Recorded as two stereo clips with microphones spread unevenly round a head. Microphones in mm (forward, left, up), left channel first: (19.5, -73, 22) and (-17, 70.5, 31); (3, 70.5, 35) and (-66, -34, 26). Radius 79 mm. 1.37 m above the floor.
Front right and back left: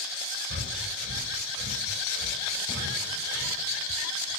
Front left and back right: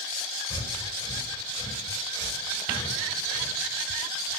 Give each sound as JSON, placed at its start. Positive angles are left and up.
{"t": 0.5, "sound": "breathing", "azimuth_deg": 110, "distance_m": 4.0}